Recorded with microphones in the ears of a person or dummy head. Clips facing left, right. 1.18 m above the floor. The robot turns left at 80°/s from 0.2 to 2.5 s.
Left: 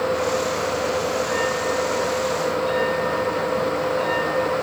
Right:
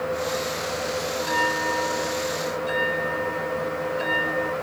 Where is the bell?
65° right; by 4.5 s 170° right.